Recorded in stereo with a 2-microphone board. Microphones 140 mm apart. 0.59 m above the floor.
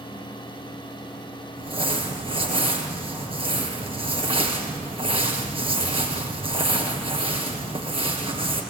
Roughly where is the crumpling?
Right.